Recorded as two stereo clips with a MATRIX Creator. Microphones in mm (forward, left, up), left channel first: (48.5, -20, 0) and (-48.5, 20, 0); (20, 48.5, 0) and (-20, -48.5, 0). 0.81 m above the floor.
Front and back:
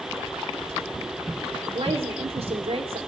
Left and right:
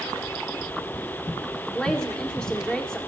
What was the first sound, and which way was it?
A woman speaking, 150° left.